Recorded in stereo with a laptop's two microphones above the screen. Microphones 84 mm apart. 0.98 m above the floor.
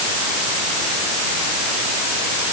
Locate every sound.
Only background noise.